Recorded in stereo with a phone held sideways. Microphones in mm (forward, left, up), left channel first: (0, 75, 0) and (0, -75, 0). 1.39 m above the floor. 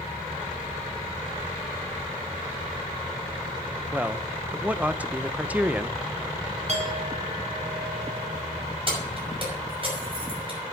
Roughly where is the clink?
Right.